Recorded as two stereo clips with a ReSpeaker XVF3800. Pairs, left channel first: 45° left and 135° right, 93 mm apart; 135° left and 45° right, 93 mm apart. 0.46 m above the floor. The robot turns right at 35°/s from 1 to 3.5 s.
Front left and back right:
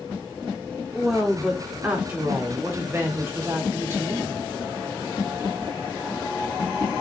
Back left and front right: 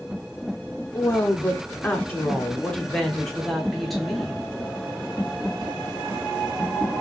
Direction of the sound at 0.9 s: 140° left.